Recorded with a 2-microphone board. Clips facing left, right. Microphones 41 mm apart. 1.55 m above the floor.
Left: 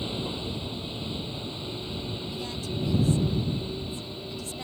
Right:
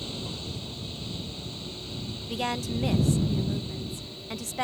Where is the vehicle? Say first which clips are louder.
Left 4 dB; 20° left (ahead or behind).